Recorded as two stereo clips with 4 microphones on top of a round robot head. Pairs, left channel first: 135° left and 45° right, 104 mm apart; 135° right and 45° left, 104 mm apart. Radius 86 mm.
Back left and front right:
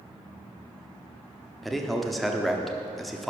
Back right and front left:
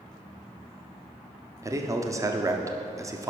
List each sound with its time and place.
1.6 s a man speaking: 45° left, 1.0 m